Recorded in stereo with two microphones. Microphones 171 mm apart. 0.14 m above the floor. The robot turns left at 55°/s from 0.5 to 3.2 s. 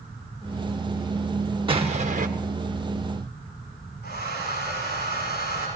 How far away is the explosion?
About 1.6 m.